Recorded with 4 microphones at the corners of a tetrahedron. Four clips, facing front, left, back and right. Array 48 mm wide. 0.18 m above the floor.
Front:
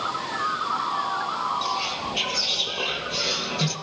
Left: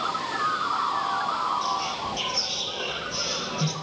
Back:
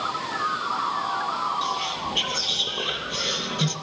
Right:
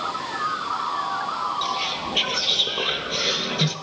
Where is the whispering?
95° right, 3 m.